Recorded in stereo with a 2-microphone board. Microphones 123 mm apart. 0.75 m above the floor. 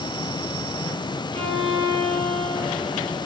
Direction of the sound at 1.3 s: 60° right (ahead or behind).